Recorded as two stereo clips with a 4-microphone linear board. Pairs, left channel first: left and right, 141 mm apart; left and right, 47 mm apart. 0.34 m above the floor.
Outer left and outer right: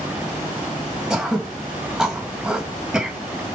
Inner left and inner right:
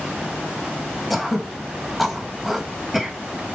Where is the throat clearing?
5° right (ahead or behind), 2.5 m.